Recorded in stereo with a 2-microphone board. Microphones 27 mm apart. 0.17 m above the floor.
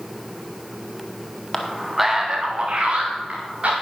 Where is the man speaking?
15° left (ahead or behind), 1.3 m; by 3.7 s 50° right (ahead or behind), 2.5 m.